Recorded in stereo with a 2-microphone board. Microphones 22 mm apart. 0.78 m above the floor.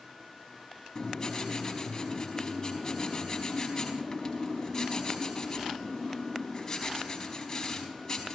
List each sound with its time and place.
0.9 s writing: 25° left (ahead or behind), 4 m